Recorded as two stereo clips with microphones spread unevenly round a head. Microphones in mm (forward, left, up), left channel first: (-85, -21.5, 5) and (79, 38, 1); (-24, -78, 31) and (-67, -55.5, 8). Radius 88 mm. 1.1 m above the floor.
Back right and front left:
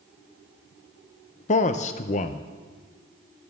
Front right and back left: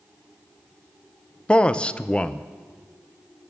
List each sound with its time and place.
1.5 s a man speaking: 110° right, 0.5 m